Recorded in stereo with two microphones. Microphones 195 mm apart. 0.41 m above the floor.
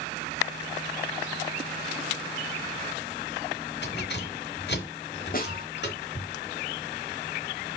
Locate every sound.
3.8 s keys jangling: 60° left (ahead or behind), 4 m
5.3 s a snare drum: 50° left (ahead or behind), 1.9 m